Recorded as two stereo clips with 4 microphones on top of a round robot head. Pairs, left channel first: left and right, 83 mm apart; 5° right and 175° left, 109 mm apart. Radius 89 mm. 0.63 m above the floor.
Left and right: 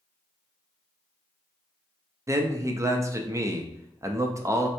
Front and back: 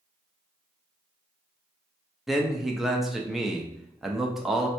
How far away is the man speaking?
About 0.6 m.